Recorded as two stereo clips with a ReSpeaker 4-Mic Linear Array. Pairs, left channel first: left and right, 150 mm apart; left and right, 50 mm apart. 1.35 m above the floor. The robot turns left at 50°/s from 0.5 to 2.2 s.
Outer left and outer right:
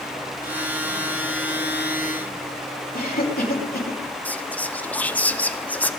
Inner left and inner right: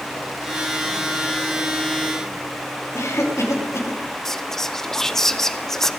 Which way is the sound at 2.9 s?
85° left.